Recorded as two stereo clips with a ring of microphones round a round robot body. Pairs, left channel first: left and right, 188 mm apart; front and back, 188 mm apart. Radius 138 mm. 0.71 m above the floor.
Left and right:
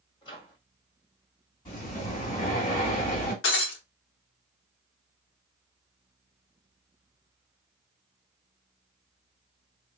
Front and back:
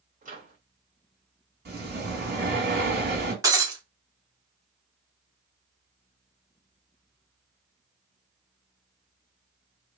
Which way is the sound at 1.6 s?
155° left.